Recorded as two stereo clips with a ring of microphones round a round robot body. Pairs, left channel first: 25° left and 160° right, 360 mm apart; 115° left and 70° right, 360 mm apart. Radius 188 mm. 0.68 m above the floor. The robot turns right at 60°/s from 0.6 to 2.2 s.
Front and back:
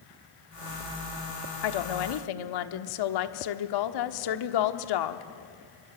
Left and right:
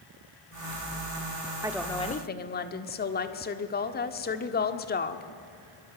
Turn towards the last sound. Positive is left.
turn(degrees=45)